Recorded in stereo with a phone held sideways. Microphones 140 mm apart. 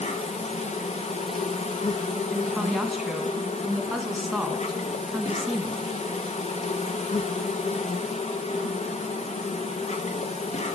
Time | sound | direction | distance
0.0 | an insect | 50° left (ahead or behind) | 0.8 m
2.3 | a woman speaking | centre (ahead or behind) | 1.3 m